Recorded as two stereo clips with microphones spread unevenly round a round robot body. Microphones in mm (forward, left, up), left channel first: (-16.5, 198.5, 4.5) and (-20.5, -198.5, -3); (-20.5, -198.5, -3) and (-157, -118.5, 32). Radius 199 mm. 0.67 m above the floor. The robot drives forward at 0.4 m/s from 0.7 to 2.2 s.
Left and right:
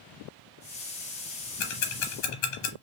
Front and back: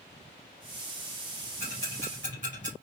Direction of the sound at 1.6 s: 90° left.